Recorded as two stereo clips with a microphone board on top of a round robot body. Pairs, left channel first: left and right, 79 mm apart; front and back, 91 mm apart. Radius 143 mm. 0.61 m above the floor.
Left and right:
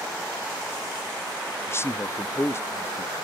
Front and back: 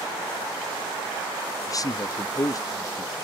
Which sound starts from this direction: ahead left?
A man speaking, at 1.7 s.